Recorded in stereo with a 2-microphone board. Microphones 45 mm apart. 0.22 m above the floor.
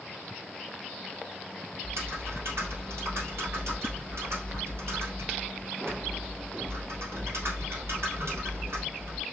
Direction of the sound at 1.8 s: 80° right.